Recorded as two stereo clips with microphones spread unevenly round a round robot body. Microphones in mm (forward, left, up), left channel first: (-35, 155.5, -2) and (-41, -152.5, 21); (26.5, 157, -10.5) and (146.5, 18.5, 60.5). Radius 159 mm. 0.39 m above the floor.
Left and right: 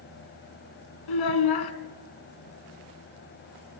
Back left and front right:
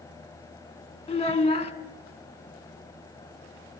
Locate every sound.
1.1 s a child speaking: 75° left, 2 m